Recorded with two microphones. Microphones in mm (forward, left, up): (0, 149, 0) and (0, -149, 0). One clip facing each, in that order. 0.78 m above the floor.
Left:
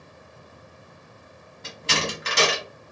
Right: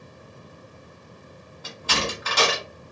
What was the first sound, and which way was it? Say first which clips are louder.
A door slam: even; 25° left (ahead or behind).